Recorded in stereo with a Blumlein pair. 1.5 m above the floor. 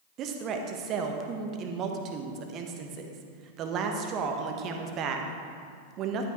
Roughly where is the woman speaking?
Ahead right.